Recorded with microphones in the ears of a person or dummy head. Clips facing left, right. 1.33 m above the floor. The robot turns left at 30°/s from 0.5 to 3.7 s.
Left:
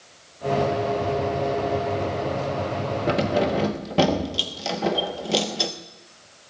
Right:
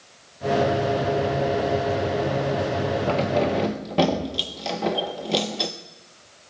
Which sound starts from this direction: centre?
Keys jangling, at 3.1 s.